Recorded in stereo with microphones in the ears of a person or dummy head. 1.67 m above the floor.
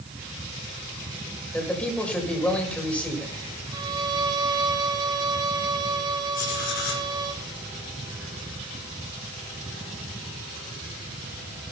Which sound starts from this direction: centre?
A man speaking, at 1.5 s.